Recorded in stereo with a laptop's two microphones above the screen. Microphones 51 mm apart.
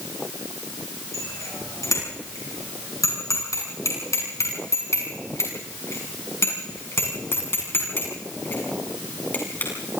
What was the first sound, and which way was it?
A bicycle bell, 80° left.